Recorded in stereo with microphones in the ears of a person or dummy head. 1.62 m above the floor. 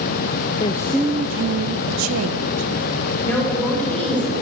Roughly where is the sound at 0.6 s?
Left.